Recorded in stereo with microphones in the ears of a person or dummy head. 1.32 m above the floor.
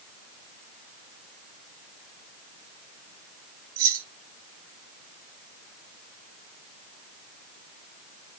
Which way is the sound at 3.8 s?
85° right.